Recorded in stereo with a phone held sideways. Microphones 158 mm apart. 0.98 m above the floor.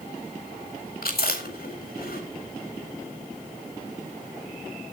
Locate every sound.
1.0 s chewing: 80° left, 4 m